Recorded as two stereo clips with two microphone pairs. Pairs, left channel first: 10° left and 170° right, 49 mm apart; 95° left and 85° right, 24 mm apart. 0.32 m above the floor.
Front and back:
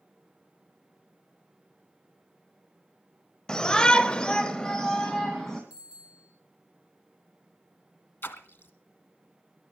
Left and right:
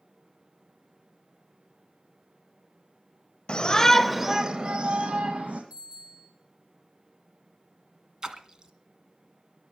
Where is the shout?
80° left, 1.2 m; by 5.6 s 70° right, 2.5 m.